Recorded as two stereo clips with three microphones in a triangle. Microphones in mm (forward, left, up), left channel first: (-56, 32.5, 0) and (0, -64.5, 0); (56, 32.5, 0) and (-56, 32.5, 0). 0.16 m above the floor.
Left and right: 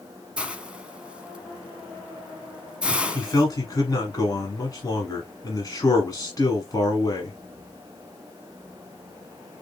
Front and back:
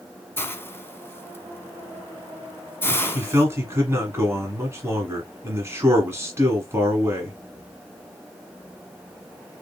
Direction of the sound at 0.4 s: Straight ahead.